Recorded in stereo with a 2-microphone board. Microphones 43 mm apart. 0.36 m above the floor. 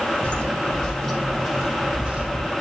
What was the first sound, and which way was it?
Footsteps, 25° left (ahead or behind).